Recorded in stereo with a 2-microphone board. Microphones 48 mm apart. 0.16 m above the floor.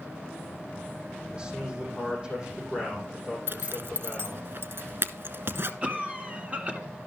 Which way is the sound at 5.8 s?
25° right (ahead or behind).